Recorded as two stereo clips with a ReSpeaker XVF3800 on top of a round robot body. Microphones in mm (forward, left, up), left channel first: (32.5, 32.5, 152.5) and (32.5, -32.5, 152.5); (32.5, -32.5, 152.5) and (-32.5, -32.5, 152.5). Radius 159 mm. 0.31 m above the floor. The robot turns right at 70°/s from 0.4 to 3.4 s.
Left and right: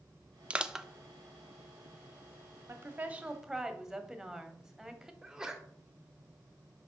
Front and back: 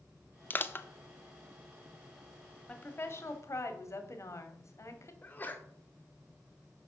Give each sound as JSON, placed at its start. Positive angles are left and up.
{"t": 0.5, "sound": "crushing", "azimuth_deg": -30, "distance_m": 0.7}
{"t": 2.7, "sound": "a woman speaking", "azimuth_deg": -60, "distance_m": 1.5}
{"t": 5.2, "sound": "a sneeze", "azimuth_deg": -20, "distance_m": 1.5}